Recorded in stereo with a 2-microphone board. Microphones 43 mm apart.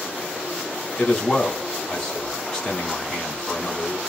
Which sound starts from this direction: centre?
A man speaking, at 1.0 s.